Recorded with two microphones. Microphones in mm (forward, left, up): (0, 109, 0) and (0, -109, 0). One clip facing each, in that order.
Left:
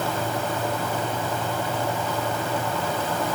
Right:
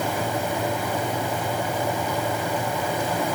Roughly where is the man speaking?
I don't hear a man speaking.